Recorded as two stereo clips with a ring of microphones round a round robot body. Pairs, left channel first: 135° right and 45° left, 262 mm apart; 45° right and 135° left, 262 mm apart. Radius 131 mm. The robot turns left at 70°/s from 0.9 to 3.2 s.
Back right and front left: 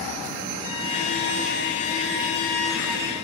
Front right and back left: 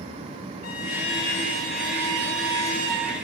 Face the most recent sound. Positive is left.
turn(degrees=100)